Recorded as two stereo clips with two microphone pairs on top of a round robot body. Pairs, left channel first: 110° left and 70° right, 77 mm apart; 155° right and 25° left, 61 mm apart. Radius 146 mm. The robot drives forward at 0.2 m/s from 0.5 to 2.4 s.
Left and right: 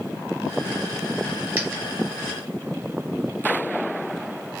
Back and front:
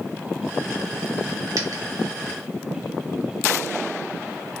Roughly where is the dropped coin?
Ahead.